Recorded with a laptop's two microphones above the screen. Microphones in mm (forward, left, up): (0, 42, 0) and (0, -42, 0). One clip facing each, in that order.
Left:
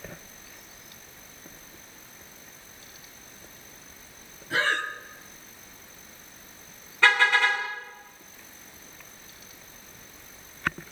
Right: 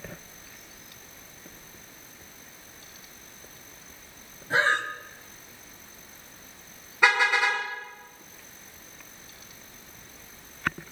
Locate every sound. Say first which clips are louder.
4.5 s breathing: right 2 dB; 30° right (ahead or behind), 1.6 m
7.0 s a car horn: left 1 dB; 15° right (ahead or behind), 5.5 m